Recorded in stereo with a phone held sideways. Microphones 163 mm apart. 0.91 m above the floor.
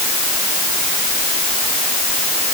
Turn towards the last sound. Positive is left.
No sound to turn to.